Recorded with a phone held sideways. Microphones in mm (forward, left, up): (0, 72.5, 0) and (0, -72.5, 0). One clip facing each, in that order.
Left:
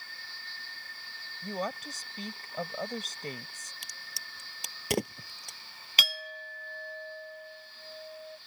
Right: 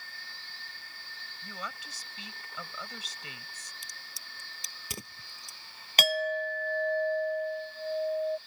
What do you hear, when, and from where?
1.4 s a woman speaking: 45° left (ahead or behind)
3.8 s a crack: 70° left (ahead or behind)
6.0 s a clink: 45° right (ahead or behind)